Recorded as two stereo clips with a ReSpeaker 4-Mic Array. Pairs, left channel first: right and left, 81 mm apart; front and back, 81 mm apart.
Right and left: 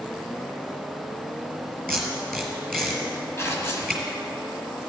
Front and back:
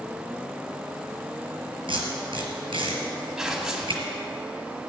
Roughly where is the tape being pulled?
Behind.